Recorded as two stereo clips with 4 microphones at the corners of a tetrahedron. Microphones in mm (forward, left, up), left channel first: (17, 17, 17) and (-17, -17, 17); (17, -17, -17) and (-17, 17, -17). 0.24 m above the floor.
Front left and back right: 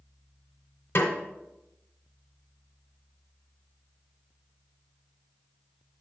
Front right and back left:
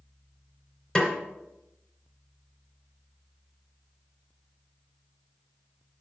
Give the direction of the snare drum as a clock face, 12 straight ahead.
11 o'clock.